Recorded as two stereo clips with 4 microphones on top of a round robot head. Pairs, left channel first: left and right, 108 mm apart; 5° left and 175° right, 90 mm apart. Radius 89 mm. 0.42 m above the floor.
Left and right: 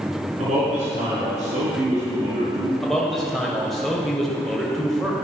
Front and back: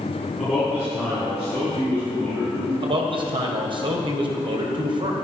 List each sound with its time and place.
0.4 s a man speaking: 90° right, 5.5 m
2.8 s a man speaking: straight behind, 2.5 m